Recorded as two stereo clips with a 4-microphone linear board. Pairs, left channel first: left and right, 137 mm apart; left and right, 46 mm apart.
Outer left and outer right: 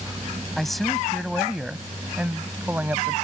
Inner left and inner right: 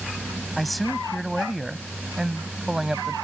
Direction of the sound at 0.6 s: 5° left (ahead or behind).